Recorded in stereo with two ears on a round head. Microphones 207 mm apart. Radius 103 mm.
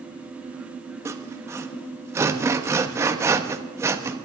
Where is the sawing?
10° right (ahead or behind), 1.0 m.